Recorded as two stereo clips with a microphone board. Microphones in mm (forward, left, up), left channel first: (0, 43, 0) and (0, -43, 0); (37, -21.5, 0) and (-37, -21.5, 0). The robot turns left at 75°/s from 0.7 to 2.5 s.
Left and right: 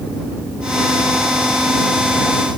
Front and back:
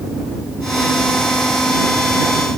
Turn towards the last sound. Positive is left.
No sound to turn to.